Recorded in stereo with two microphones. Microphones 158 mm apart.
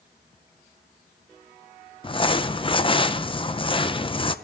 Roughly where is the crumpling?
Left.